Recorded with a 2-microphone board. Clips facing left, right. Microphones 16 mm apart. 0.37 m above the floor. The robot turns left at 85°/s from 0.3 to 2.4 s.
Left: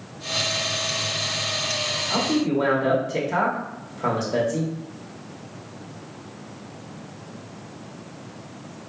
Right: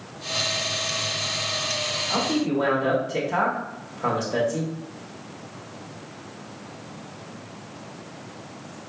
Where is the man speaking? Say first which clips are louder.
Left 2 dB; 5° left (ahead or behind), 1.0 m; by 4.7 s 10° left (ahead or behind), 1.0 m.